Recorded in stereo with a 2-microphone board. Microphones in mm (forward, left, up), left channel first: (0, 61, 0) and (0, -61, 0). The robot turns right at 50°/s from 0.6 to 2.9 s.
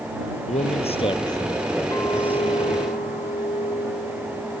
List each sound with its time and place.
0.5 s a man speaking: 110° left; by 2.4 s 160° right
1.9 s a clink: 25° left; by 4.6 s 75° left